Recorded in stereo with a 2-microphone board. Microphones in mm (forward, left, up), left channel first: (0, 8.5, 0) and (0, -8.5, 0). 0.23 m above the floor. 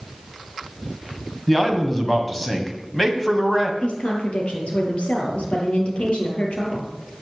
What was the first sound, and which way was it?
A man speaking, 10° left (ahead or behind).